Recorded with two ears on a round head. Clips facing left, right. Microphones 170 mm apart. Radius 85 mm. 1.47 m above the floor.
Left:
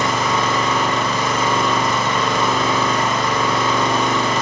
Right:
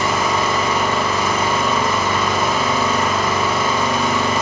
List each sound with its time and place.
0.0 s an engine running: 5° right (ahead or behind), 1.0 m